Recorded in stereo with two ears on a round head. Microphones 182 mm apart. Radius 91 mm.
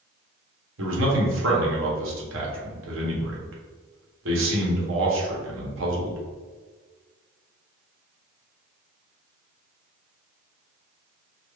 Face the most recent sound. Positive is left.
turn(degrees=-70)  # may be behind; listen again after turning